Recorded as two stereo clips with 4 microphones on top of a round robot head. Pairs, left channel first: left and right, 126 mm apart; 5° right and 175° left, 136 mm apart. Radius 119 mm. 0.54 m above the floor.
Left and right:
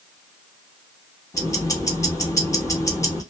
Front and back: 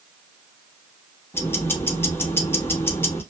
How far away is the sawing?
I don't hear sawing.